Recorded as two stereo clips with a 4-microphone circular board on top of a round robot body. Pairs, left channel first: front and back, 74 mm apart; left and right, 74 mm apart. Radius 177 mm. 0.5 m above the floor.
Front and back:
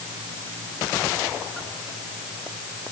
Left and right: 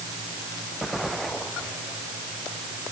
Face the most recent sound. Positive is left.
No sound to turn to.